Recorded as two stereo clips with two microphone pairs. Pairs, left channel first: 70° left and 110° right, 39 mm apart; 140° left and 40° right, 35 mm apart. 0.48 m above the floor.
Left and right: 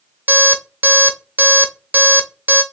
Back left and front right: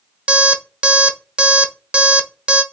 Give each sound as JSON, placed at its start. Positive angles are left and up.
{"t": 0.3, "sound": "an alarm clock", "azimuth_deg": -95, "distance_m": 0.6}